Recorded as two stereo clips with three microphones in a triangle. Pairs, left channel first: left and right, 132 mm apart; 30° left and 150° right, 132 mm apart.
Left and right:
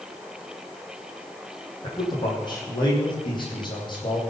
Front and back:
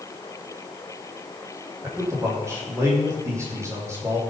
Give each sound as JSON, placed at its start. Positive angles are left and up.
{"t": 1.8, "sound": "a man speaking", "azimuth_deg": 145, "distance_m": 5.0}